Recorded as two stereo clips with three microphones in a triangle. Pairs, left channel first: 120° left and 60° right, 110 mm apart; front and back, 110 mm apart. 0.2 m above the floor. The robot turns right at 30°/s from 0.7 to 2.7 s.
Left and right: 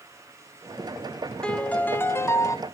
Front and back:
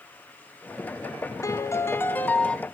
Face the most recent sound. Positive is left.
turn(degrees=80)